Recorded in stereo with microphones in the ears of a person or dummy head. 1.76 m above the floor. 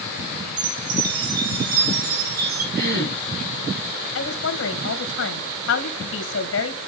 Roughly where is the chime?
Right.